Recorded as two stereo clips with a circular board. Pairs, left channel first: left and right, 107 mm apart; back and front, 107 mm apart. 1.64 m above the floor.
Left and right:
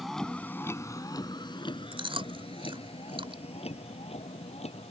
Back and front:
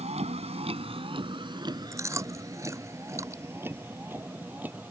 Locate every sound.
0.0 s a vehicle: straight ahead; by 4.9 s 75° left
1.9 s chewing: 60° right